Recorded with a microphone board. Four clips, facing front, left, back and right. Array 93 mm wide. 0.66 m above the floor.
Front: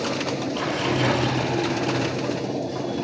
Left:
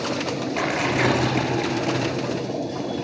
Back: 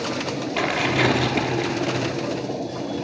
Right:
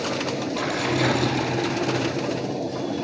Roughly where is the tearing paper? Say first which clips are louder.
Left 2 dB, back 4 dB; behind left.